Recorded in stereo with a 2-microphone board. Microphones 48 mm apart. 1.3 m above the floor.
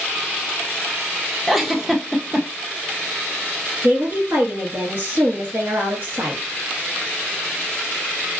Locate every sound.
1.5 s a giggle: 5° right (ahead or behind), 0.5 m
3.8 s a woman speaking: 45° right (ahead or behind), 1.8 m